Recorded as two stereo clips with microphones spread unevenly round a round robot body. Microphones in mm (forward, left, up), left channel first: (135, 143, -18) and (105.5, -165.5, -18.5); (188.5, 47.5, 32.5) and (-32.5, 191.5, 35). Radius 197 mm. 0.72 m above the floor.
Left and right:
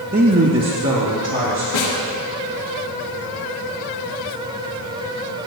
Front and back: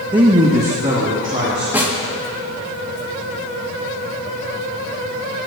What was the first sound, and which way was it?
A man speaking, 150° right.